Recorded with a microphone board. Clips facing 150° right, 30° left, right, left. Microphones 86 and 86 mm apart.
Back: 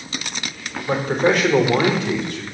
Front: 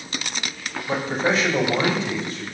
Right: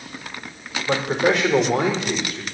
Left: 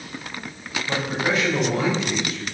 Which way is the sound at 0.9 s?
110° right.